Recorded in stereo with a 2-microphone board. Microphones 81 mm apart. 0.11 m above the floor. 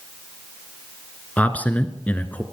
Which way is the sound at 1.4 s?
20° left (ahead or behind).